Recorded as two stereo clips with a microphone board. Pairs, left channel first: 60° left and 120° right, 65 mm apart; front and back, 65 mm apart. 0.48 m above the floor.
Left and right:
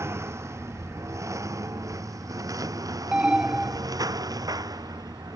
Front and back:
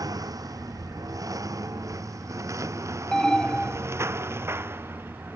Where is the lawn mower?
165° right; by 5.4 s 125° right.